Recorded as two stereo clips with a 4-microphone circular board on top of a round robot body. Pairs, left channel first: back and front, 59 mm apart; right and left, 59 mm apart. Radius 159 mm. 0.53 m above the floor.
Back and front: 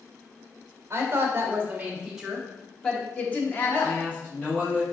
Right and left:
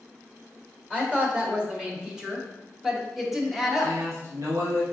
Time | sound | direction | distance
0.9 | a woman speaking | 25° left | 1.4 m
3.8 | a man speaking | 115° left | 1.9 m